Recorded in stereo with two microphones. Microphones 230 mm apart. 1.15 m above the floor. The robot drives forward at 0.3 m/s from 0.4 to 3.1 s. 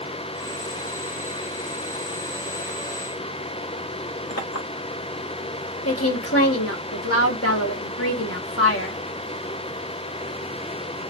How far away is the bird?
No bird in this recording.